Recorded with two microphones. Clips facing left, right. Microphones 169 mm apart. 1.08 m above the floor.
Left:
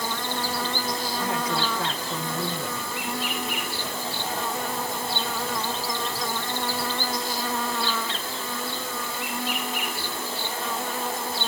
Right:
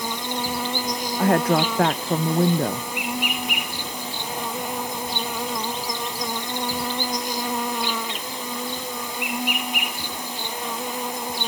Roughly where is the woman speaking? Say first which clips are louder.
Right 11 dB; right.